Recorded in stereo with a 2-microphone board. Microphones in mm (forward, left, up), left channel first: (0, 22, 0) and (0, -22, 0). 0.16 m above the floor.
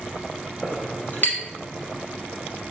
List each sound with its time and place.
0.6 s a clink: 45° left (ahead or behind), 1.2 m